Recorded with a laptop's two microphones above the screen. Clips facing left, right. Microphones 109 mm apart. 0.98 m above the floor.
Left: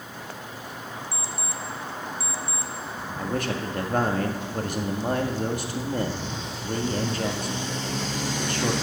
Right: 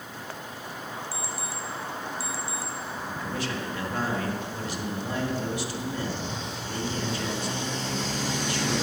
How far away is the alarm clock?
About 1.1 m.